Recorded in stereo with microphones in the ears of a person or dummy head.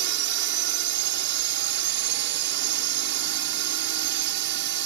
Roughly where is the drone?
Right.